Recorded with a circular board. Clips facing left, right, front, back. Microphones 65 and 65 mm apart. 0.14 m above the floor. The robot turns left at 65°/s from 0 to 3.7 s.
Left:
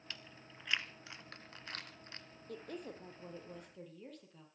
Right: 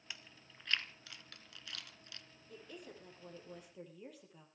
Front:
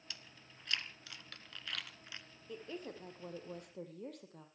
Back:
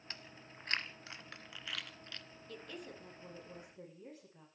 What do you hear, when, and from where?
0.1 s chewing: 160° right, 1.1 m; by 2.2 s 60° left, 1.1 m
2.5 s a woman speaking: 75° left, 4 m; by 4.5 s 5° right, 4 m